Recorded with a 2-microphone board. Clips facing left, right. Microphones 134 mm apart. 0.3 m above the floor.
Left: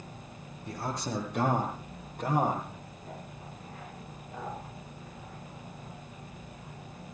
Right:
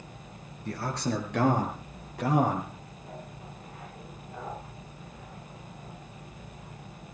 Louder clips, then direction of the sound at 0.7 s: Right 4 dB; 70° right (ahead or behind).